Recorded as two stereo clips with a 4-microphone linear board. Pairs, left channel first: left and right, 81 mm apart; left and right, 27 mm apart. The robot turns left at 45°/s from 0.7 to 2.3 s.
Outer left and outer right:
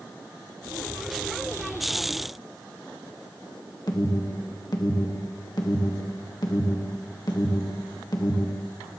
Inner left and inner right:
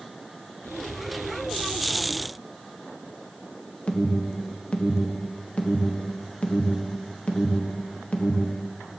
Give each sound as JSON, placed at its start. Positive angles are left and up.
{"t": 3.9, "sound": "an alarm", "side_deg": 55, "distance_m": 1.5}